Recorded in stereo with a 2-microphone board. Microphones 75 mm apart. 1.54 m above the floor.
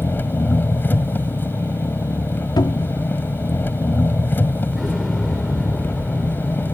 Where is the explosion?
Centre (ahead or behind).